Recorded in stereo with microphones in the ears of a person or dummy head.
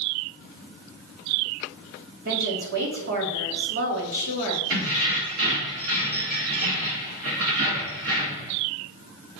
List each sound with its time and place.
2.2 s a woman speaking: 55° right (ahead or behind), 1.7 m
4.7 s keys jangling: 45° right (ahead or behind), 1.4 m